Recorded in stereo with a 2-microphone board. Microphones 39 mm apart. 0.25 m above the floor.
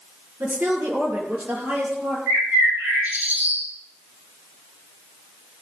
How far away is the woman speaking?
About 5 m.